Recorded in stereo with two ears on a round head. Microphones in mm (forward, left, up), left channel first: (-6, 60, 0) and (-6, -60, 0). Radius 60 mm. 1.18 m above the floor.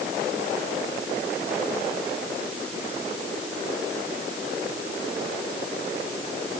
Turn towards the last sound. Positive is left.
No sound to turn to.